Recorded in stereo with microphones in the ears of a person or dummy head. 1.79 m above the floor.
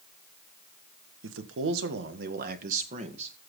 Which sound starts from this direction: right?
A man speaking, at 1.2 s.